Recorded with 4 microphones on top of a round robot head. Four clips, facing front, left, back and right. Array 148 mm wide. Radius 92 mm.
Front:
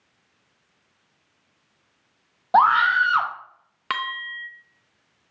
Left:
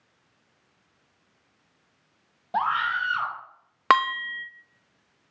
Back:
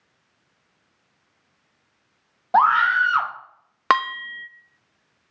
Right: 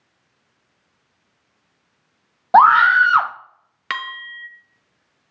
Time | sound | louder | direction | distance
2.5 | a scream | right 15 dB, even | 85° right | 1.1 m
3.9 | dishes clattering | left 9 dB, back 9 dB | 135° left | 0.6 m